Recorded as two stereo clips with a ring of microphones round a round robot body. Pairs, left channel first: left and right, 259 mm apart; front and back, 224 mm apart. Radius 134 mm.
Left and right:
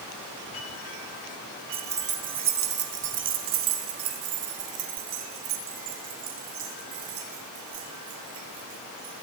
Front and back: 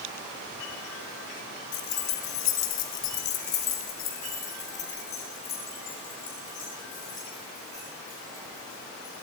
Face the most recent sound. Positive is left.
turn(degrees=-80)